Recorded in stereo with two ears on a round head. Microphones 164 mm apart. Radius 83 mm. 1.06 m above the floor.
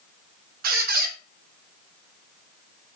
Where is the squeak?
50° right (ahead or behind), 0.7 m.